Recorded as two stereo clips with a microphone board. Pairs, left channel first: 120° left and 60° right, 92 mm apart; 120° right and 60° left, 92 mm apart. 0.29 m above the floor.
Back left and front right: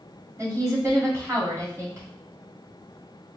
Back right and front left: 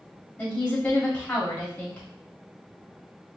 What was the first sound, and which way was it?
A woman speaking, 60° right.